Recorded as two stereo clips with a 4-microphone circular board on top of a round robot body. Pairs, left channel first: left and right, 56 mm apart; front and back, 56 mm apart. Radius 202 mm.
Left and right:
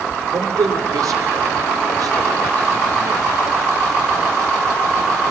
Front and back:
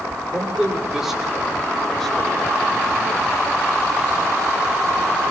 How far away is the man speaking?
About 4.5 m.